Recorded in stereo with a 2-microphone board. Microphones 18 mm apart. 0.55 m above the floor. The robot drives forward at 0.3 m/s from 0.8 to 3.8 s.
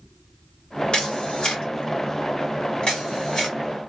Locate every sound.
0.9 s a camera shutter: 50° left (ahead or behind), 1.8 m; by 3.6 s 45° left (ahead or behind), 2 m